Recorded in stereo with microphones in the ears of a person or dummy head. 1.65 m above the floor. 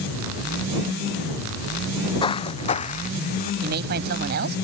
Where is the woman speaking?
55° right (ahead or behind).